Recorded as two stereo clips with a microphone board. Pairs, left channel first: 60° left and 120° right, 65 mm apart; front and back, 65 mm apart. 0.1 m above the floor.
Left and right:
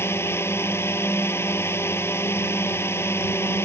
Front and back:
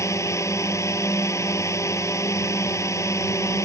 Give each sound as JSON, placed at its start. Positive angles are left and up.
{"t": 0.0, "sound": "a drone", "azimuth_deg": 20}